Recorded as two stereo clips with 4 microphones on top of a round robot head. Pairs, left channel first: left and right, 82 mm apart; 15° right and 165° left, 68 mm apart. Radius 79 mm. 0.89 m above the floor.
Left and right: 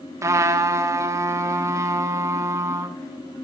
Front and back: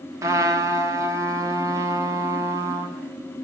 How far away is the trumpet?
About 1.4 m.